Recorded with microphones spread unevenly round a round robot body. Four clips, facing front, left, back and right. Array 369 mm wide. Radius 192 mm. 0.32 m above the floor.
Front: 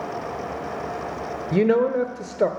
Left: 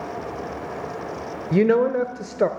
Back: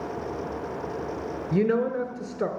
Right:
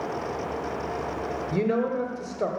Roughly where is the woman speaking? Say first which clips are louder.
Left 8 dB, front 5 dB; left.